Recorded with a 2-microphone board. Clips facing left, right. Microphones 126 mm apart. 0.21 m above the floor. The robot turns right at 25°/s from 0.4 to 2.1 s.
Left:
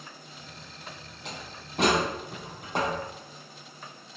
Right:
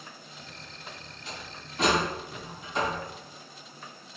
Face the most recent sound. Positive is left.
turn(degrees=60)  # may be behind; listen again after turning